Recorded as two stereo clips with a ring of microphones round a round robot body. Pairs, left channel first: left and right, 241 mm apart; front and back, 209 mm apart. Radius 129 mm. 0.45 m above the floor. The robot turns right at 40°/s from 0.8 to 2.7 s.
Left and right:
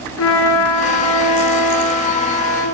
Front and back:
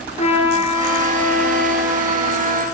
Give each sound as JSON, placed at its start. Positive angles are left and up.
{"t": 0.2, "sound": "a trumpet", "azimuth_deg": 60, "distance_m": 6.0}